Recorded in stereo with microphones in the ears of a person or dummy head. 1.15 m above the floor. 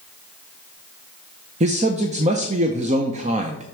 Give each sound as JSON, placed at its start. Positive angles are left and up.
{"t": 1.6, "sound": "a man speaking", "side_deg": -30, "distance_m": 0.8}